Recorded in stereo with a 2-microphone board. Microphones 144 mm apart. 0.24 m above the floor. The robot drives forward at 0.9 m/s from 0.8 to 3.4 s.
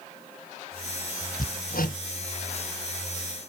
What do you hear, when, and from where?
1.4 s hammering: 85° left; by 2.0 s 80° left